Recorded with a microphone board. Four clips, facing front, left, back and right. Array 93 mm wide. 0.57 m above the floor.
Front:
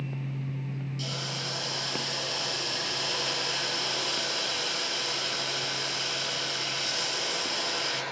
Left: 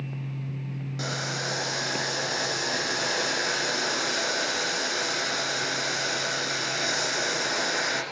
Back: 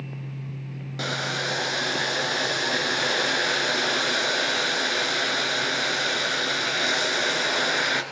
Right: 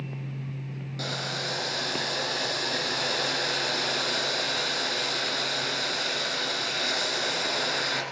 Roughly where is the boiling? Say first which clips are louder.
Left 1 dB, back 13 dB; behind.